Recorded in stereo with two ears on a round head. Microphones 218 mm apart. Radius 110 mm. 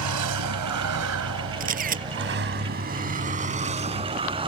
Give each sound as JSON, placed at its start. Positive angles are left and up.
{"t": 0.0, "sound": "a vehicle", "side_deg": -80}
{"t": 1.6, "sound": "a camera shutter", "side_deg": -35}